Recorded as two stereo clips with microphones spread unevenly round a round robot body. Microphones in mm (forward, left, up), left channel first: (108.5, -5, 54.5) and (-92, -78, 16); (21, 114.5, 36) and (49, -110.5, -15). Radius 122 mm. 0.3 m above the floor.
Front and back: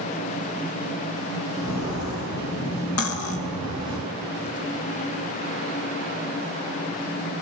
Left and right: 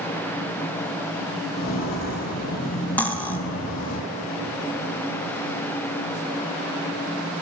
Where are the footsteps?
50° left, 7 m; by 4.0 s 45° left, 8 m.